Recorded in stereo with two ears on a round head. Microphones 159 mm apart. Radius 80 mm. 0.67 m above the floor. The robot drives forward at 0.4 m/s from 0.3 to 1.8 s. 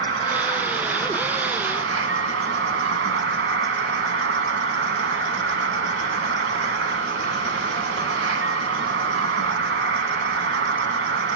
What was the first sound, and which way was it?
An insect, 65° right (ahead or behind).